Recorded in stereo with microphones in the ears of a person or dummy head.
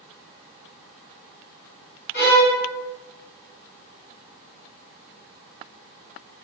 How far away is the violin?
About 1.4 m.